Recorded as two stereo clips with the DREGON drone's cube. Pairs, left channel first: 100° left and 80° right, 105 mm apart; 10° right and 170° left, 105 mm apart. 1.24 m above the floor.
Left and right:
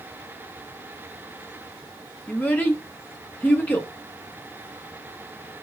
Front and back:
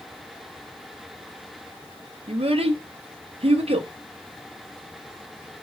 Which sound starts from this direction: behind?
A child speaking, at 2.3 s.